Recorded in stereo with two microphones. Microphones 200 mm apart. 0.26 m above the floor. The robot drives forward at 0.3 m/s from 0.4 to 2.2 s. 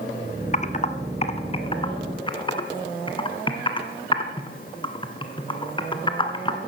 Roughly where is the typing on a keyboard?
Left.